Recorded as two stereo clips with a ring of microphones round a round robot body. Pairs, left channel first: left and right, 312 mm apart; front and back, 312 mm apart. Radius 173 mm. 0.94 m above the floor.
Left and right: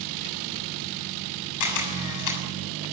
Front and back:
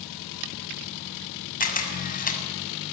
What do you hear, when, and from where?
1.6 s a camera shutter: 65° left, 7 m